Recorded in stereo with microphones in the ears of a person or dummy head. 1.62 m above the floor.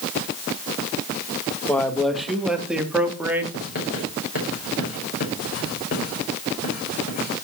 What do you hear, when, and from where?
1.7 s a man speaking: 10° left (ahead or behind), 1.6 m; by 3.4 s 5° right (ahead or behind), 3 m
3.5 s writing: 50° left (ahead or behind), 6 m